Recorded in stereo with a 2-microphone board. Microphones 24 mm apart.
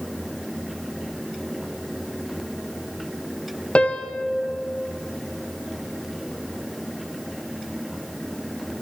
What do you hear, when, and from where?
3.8 s a piano: 50° left (ahead or behind), 0.7 m